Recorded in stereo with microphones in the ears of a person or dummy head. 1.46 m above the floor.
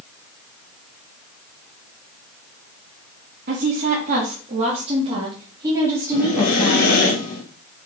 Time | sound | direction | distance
3.5 | a woman speaking | 55° right (ahead or behind) | 2 m
6.1 | breathing | 55° left (ahead or behind) | 2.5 m